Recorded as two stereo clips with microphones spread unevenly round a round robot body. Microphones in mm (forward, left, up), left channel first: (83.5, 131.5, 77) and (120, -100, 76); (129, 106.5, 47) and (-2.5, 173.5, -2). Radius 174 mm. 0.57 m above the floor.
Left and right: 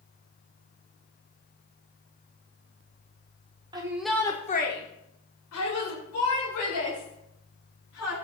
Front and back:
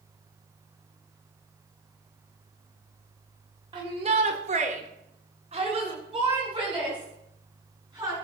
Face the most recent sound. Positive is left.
turn(degrees=90)